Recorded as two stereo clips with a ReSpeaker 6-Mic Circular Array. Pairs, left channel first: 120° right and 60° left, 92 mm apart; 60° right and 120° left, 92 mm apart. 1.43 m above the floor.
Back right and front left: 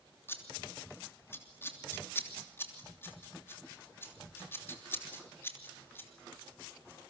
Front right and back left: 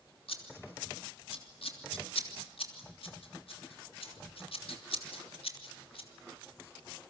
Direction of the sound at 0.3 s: 55° right.